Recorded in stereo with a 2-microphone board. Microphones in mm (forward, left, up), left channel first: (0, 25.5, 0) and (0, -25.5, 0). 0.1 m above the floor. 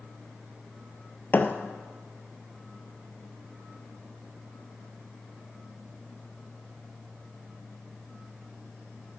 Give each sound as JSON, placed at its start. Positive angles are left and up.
{"t": 1.3, "sound": "a thud", "side_deg": 35, "distance_m": 1.0}